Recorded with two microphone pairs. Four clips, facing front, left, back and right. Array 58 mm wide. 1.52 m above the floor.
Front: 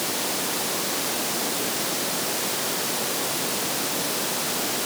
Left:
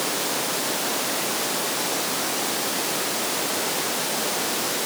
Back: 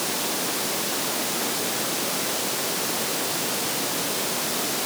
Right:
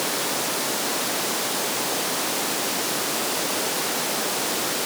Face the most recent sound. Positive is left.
No sound to turn to.